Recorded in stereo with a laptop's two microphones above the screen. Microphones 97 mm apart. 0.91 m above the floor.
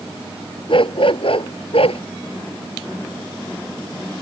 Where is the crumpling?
I don't hear crumpling.